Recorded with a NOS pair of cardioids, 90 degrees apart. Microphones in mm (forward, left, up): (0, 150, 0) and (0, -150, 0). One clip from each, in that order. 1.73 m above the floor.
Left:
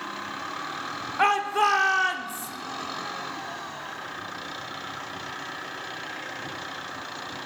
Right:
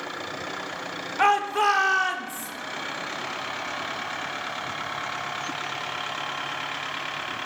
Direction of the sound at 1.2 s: Straight ahead.